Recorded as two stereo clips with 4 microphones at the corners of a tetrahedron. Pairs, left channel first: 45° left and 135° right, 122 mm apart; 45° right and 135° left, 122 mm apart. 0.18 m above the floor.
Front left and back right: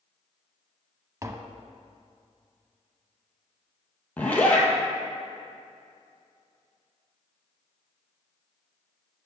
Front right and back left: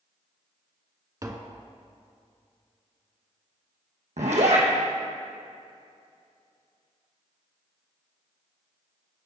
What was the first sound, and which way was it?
Tapping, 175° left.